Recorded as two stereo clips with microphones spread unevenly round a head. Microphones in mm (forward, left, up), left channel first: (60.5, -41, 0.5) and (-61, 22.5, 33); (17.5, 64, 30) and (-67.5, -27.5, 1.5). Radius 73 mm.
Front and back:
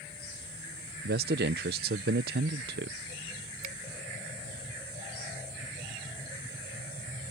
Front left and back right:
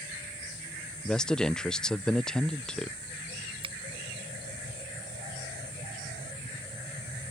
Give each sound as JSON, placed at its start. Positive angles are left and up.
{"t": 1.0, "sound": "a man speaking", "azimuth_deg": 130}
{"t": 3.6, "sound": "a finger snap", "azimuth_deg": 180}